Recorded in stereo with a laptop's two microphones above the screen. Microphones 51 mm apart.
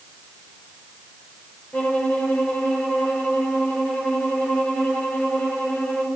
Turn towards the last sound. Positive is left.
turn(degrees=25)  # may be behind; listen again after turning